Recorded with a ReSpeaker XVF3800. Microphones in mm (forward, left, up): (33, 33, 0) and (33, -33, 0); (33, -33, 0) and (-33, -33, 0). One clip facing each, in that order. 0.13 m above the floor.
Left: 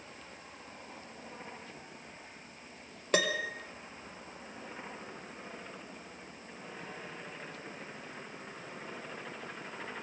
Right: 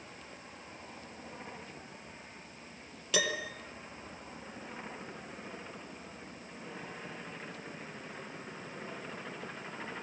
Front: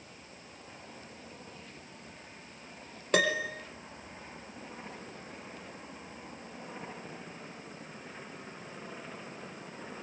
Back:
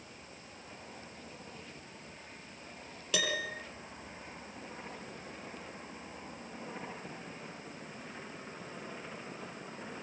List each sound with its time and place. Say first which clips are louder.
3.1 s a piano: left 3 dB, front 7 dB; 45° left, 3 m